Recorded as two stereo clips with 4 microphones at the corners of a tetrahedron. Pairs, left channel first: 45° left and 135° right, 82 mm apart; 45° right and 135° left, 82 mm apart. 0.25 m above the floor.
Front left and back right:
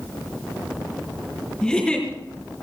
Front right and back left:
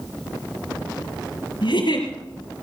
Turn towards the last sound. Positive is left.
turn(degrees=-35)